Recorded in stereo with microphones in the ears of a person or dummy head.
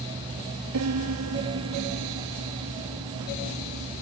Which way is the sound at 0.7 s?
85° right.